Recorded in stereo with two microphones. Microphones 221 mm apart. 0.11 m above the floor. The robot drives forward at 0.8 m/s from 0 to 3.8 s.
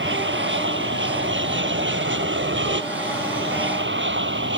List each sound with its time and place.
0.0 s an aircraft: 60° right (ahead or behind)